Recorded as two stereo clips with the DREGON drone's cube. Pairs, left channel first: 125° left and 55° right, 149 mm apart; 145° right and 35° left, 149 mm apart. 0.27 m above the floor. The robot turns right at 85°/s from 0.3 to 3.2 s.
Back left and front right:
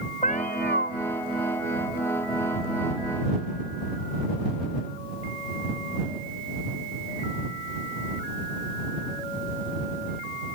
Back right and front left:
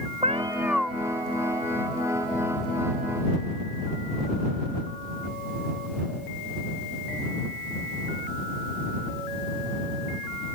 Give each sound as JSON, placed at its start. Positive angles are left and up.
{"t": 0.2, "sound": "a cat meowing", "azimuth_deg": 85}